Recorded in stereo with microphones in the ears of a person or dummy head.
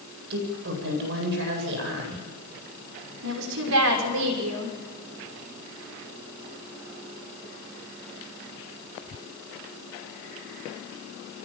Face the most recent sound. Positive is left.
turn(degrees=-75)  # may be behind; listen again after turning